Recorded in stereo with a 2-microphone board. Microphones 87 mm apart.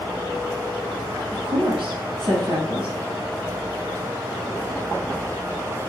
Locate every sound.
1.3 s a woman speaking: 75° right (ahead or behind), 4 m